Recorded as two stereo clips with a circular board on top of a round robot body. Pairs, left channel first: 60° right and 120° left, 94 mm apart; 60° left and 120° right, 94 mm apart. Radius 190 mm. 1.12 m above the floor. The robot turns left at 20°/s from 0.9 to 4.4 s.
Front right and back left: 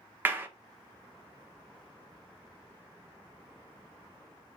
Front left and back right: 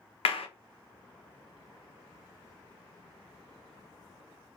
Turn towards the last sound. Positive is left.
turn(degrees=-20)